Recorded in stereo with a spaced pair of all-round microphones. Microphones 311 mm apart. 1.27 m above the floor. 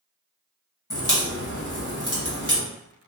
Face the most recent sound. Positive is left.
turn(degrees=85)